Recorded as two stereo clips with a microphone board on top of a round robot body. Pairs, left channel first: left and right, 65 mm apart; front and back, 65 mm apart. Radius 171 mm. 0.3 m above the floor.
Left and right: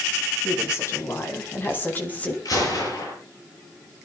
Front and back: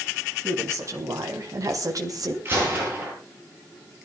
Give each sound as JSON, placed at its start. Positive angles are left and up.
{"t": 0.4, "sound": "a woman speaking", "azimuth_deg": 130, "distance_m": 4.5}
{"t": 2.5, "sound": "a gunshot", "azimuth_deg": 120, "distance_m": 9.0}